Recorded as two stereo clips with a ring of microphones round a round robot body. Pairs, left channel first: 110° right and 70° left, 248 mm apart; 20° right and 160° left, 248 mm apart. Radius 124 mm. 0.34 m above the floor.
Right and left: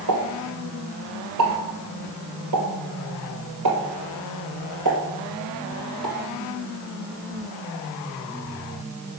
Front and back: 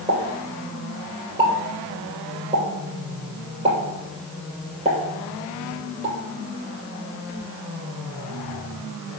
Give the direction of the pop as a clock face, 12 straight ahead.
9 o'clock.